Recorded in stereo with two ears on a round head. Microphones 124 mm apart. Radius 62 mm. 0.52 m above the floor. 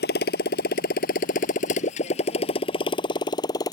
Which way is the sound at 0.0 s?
90° left.